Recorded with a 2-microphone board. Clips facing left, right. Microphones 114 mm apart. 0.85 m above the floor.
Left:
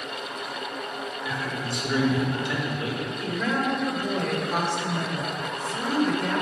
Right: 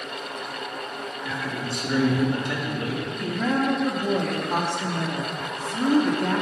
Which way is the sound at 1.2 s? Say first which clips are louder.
Right 1 dB; 45° right (ahead or behind).